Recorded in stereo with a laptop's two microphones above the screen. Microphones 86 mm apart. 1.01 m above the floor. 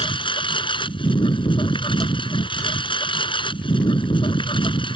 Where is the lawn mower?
80° left.